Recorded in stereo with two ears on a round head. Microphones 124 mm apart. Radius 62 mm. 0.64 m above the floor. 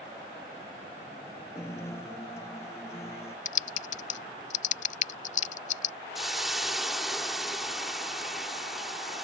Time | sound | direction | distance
1.6 | a guitar | 20° left (ahead or behind) | ?
3.5 | typing on a keyboard | 55° left (ahead or behind) | ?
6.2 | a hiss | centre (ahead or behind) | ?